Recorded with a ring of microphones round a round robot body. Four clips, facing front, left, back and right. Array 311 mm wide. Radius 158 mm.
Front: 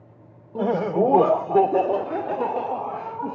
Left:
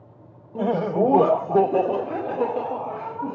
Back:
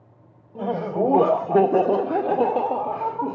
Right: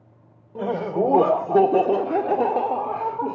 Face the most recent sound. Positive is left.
turn(degrees=-150)